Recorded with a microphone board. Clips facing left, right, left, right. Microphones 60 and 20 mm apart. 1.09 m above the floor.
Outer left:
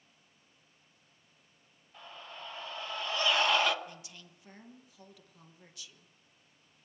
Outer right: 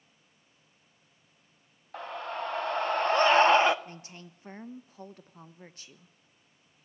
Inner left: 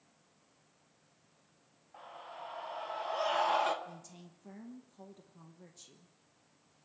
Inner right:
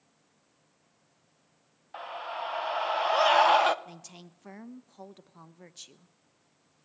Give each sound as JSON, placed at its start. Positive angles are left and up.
{"t": 1.9, "sound": "a scream", "side_deg": -75, "distance_m": 1.7}
{"t": 3.9, "sound": "a woman speaking", "side_deg": -40, "distance_m": 1.1}